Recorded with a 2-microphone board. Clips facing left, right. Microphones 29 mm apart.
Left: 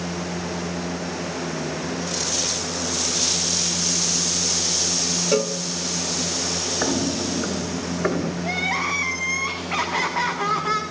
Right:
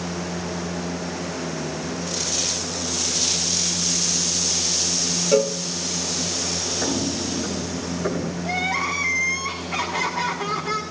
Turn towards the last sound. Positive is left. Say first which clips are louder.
# right 1 dB
turn(degrees=50)  # may be behind; listen again after turning